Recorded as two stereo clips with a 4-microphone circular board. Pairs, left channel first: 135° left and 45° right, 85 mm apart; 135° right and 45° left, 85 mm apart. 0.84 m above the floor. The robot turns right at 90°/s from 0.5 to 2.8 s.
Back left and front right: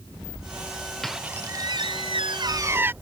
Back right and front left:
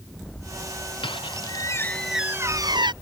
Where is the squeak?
140° right; by 2.9 s 20° left.